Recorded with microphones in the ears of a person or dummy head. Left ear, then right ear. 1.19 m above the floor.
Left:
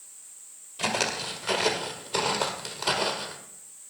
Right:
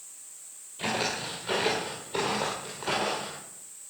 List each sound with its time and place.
0.8 s footsteps: 45° left (ahead or behind), 2.0 m; by 3.4 s 55° left (ahead or behind), 2.5 m